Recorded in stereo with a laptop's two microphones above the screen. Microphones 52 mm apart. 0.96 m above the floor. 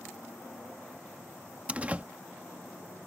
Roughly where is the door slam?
Right.